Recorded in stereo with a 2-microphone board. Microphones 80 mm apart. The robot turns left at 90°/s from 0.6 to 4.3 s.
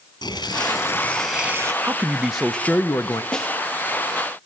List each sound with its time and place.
0.2 s tearing paper: 60° left, 5.5 m; by 1.7 s 40° right, 5.5 m
1.8 s a man speaking: 130° right, 0.7 m; by 3.2 s 105° left, 0.7 m
3.3 s a snare drum: 15° left (ahead or behind), 3 m; by 3.5 s 5° right (ahead or behind), 3 m